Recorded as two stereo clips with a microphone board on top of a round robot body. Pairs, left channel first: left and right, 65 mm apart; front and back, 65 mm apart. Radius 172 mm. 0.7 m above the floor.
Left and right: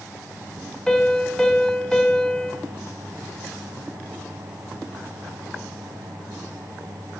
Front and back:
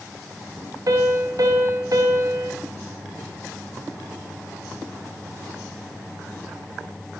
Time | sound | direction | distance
0.9 | a piano | 170° left | 1.0 m